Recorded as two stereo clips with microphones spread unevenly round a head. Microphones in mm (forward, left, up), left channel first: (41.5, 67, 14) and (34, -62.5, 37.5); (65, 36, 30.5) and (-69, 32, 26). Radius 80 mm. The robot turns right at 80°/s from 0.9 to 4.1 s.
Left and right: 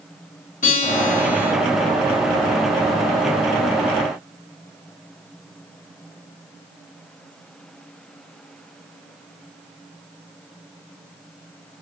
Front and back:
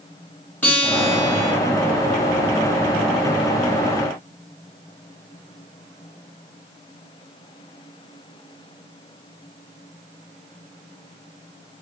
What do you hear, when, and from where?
0.6 s a guitar: 80° left, 2.5 m; by 1.5 s 130° left, 2.5 m